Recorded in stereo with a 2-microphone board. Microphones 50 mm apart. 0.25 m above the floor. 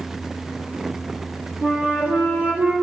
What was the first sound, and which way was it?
A flute, 45° right (ahead or behind).